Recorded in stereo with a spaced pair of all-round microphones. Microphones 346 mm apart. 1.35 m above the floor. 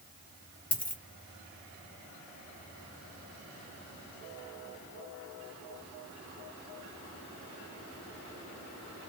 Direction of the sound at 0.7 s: 25° left (ahead or behind).